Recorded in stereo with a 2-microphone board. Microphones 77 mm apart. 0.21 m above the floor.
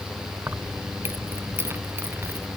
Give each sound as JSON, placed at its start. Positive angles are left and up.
{"t": 0.5, "sound": "keys jangling", "side_deg": -30}